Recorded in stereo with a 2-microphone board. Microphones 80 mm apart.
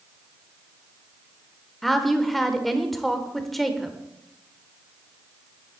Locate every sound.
1.8 s a woman speaking: centre (ahead or behind), 1.1 m